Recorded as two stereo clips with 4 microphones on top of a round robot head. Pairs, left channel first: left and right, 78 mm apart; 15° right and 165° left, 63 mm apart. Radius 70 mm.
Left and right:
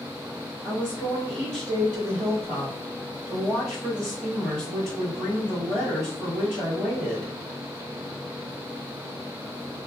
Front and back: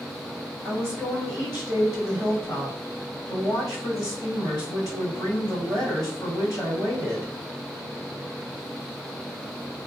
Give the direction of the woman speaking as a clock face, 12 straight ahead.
12 o'clock.